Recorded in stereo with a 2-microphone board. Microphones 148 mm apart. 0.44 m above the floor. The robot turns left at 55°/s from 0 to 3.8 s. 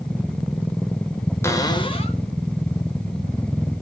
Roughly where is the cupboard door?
Behind left.